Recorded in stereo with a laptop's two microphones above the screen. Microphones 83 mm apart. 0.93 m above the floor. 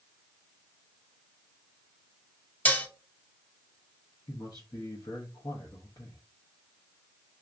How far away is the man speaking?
About 0.8 m.